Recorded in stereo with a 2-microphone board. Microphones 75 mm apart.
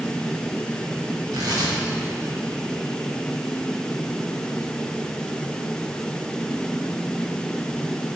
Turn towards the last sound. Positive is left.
turn(degrees=-60)  # may be behind; listen again after turning